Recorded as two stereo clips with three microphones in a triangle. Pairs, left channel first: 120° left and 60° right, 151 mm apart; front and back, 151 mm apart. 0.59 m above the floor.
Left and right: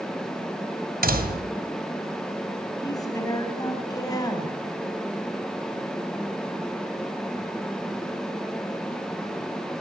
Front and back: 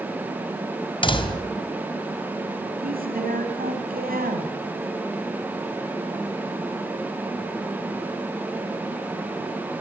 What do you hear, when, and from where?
1.0 s a door slam: 55° right, 3 m
2.8 s a woman speaking: 175° right, 5 m